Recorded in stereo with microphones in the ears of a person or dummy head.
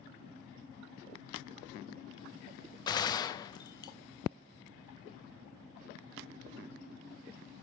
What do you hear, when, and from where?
2.9 s a gunshot: 30° left (ahead or behind), 0.6 m